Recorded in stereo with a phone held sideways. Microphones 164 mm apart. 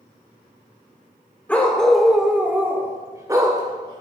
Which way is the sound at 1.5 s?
10° left (ahead or behind).